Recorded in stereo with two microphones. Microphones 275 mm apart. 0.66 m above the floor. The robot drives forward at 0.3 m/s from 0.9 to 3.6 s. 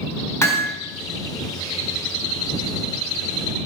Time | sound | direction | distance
0.4 | hammering | 10° left (ahead or behind) | 2.5 m